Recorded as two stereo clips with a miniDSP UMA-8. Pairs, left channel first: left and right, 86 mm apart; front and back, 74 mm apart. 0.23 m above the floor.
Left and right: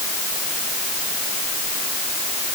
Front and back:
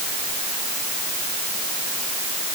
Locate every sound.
Only background noise.